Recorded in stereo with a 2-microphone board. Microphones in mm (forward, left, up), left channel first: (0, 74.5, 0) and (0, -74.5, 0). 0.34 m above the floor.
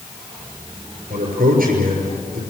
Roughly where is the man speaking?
Right.